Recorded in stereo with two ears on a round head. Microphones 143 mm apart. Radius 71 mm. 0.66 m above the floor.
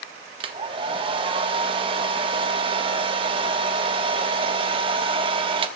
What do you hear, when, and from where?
0.4 s a hair dryer: 35° right (ahead or behind), 1.1 m